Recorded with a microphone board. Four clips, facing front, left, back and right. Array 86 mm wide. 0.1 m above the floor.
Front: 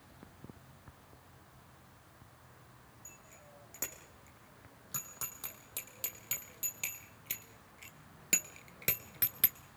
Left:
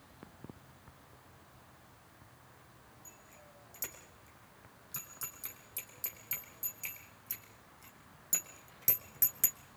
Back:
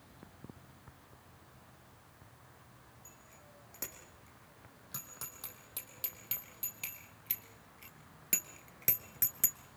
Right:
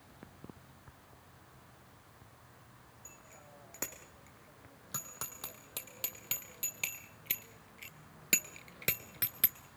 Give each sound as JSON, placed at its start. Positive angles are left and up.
{"t": 3.0, "sound": "a bicycle bell", "azimuth_deg": -85, "distance_m": 4.5}